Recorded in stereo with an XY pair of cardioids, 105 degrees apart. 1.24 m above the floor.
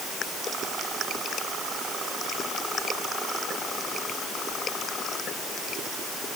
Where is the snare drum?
No snare drum in this recording.